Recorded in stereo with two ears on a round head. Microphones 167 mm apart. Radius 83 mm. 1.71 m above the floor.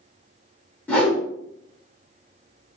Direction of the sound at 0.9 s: 10° left (ahead or behind).